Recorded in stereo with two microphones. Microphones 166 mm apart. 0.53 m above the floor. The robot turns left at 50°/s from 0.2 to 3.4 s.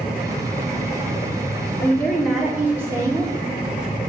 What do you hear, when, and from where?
1.8 s a woman speaking: 25° left, 1.3 m; by 3.3 s 50° right, 1.3 m